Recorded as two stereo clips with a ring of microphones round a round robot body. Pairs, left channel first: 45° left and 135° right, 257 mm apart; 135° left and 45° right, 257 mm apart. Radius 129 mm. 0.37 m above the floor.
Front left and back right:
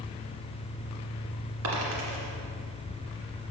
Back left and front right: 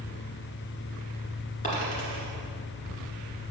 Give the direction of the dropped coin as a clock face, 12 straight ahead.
5 o'clock.